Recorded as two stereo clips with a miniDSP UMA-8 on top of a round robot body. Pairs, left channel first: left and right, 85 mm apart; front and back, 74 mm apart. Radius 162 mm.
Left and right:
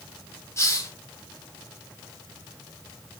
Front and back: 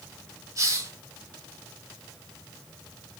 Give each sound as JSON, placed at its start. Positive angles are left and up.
{"t": 0.6, "sound": "a hiss", "azimuth_deg": 140, "distance_m": 2.0}